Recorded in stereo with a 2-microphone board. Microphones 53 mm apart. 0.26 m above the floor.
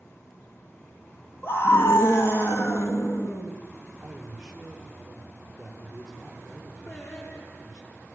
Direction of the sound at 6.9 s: 55° left (ahead or behind).